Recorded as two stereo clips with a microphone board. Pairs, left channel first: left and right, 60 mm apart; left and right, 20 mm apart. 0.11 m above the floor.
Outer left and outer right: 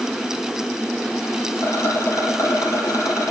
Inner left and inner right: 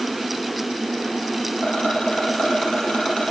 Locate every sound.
1.6 s a rattle: 60° left (ahead or behind), 3.5 m